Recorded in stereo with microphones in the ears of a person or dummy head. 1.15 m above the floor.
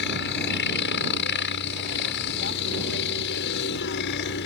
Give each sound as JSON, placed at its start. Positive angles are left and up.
{"t": 0.0, "sound": "a helicopter", "side_deg": 60}